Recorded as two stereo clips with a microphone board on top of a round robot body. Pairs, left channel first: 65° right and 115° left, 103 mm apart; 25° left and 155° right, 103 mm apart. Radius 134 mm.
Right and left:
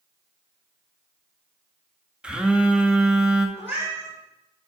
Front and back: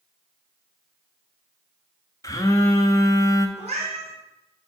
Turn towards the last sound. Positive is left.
turn(degrees=-175)